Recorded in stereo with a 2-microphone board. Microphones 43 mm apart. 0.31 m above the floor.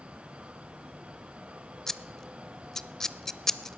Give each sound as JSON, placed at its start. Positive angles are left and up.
{"t": 1.9, "sound": "scissors", "side_deg": 10, "distance_m": 0.6}